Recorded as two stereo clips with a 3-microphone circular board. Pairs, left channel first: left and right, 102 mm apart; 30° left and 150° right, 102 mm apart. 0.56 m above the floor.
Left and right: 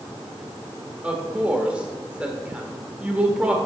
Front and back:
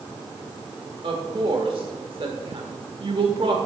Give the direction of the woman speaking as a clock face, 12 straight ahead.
6 o'clock.